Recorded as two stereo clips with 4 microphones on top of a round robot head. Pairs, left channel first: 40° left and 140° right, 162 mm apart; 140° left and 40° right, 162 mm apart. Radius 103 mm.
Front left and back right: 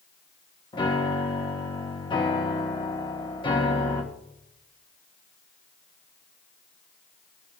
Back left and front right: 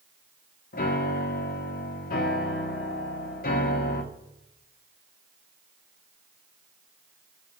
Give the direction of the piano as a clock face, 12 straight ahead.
9 o'clock.